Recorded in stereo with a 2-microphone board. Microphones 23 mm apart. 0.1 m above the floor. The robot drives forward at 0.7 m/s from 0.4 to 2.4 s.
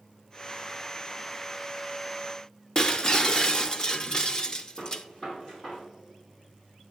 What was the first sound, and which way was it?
Breaking glass, 30° left (ahead or behind).